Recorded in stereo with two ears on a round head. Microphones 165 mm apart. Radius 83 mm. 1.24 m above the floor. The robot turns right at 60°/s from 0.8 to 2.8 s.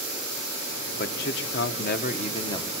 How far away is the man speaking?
About 1.1 m.